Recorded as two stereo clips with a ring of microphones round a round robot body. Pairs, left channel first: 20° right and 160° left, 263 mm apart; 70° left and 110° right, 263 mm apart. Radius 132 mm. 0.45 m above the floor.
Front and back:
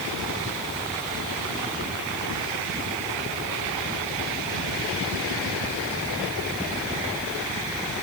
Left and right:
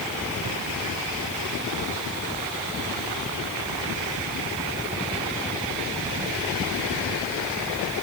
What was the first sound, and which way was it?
Only background noise.